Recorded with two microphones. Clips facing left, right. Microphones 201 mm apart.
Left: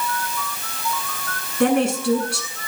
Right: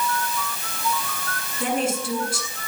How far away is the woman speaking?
About 7.5 m.